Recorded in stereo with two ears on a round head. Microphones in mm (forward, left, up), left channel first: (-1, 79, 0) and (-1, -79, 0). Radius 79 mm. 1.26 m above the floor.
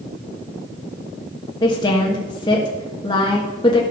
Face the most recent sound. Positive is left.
turn(degrees=25)  # may be behind; listen again after turning